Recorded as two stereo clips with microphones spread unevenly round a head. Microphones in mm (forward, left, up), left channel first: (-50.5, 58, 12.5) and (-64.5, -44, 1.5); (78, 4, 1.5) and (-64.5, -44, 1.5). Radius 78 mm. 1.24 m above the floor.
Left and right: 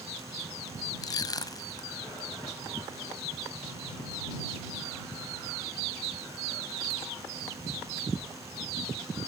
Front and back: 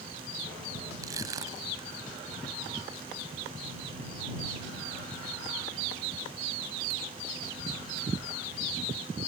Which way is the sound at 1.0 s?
130° left.